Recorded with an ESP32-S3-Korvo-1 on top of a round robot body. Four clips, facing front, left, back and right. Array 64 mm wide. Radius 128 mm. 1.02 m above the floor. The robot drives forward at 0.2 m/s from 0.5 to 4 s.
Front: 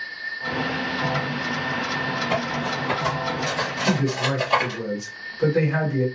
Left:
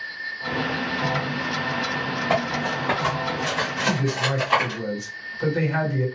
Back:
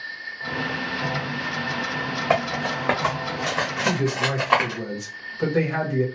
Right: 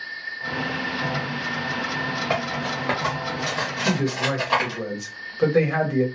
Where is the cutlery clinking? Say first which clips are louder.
Left 5 dB, back 2 dB; 175° right, 0.8 m.